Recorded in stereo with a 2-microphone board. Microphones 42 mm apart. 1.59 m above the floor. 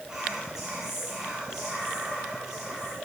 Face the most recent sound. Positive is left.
turn(degrees=-15)  # may be behind; listen again after turning